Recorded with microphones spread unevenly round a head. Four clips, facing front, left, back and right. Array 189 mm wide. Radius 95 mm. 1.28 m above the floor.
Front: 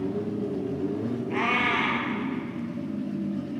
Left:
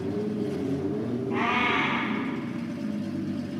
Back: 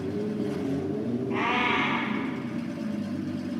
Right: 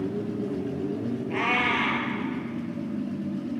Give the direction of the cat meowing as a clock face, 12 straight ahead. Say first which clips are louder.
Left 1 dB, front 1 dB; 3 o'clock.